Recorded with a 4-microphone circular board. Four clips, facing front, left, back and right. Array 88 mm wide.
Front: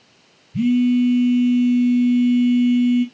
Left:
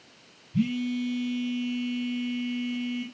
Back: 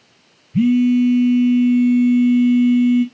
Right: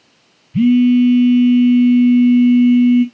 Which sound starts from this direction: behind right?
A phone buzzing, at 0.5 s.